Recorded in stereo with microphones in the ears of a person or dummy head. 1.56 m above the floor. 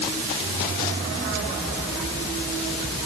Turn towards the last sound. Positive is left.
No sound to turn to.